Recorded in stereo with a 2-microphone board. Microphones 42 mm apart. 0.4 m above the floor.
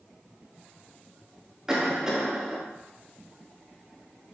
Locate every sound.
1.7 s a cough: 15° right (ahead or behind), 1.0 m